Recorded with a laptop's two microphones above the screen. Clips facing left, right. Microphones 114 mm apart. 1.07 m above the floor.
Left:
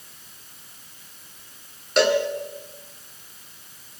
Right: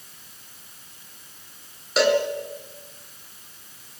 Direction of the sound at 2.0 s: Centre (ahead or behind).